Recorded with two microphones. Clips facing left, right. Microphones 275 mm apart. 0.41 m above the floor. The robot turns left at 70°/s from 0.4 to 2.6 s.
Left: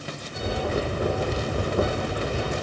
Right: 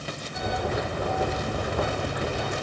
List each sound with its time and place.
Only background noise.